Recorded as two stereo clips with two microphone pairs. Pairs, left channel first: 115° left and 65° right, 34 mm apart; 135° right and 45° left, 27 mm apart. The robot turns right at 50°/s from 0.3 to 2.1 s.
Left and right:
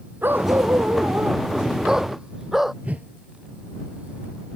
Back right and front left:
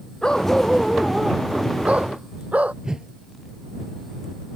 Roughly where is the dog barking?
Right.